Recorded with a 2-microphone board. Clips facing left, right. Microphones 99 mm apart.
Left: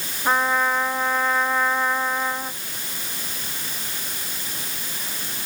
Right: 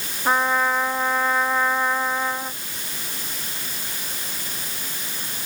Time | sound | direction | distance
0.2 | a trumpet | 5° right (ahead or behind) | ?